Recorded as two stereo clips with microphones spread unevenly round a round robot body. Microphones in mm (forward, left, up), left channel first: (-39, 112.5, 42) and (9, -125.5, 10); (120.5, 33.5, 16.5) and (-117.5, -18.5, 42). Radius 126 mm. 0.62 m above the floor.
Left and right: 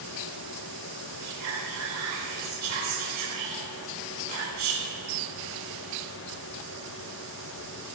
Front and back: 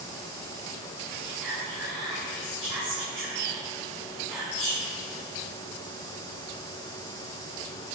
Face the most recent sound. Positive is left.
turn(degrees=-75)